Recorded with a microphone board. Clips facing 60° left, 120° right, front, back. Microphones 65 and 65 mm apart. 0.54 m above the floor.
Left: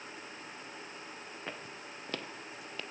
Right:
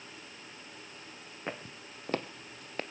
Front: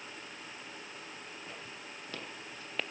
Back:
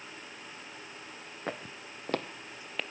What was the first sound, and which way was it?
Footsteps, 170° left.